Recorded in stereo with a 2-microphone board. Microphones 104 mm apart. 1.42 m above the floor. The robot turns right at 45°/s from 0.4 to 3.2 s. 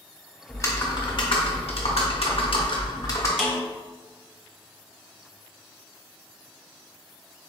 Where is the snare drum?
Centre (ahead or behind), 1.4 m.